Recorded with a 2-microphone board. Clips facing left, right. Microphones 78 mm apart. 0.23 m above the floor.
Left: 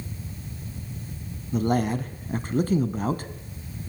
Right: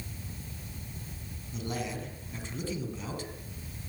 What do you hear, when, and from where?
1.5 s a man speaking: 50° left (ahead or behind), 1.9 m